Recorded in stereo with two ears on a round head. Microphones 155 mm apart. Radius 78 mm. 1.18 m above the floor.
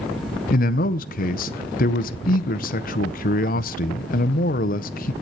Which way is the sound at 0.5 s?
50° left (ahead or behind).